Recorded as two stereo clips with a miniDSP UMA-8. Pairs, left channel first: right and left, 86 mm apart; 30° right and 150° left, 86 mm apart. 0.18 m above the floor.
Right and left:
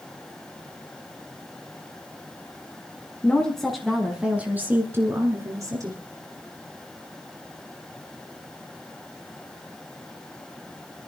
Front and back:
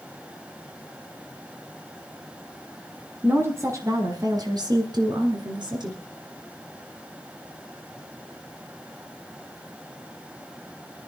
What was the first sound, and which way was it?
A woman speaking, 160° right.